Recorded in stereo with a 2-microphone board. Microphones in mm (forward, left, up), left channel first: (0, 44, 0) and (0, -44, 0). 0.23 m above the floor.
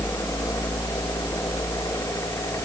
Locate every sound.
Only background noise.